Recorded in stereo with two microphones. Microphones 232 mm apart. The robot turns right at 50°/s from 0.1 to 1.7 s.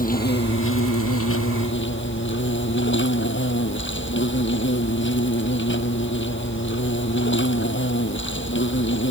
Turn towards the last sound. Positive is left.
turn(degrees=120)